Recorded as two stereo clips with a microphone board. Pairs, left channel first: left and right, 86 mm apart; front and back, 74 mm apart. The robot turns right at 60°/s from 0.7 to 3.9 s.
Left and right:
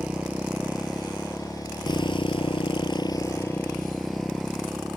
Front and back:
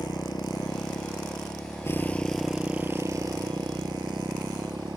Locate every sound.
0.0 s a motorcycle: 15° right; by 5.0 s straight behind